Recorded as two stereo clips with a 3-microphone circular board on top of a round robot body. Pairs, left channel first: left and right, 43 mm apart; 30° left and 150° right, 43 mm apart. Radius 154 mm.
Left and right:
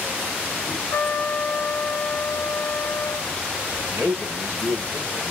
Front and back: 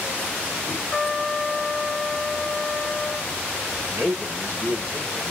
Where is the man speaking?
115° right, 3 m.